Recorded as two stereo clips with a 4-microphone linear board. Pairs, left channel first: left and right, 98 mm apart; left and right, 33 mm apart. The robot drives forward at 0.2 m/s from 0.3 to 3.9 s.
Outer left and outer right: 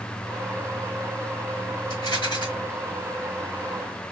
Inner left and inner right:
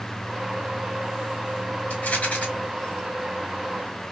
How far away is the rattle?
About 1.1 m.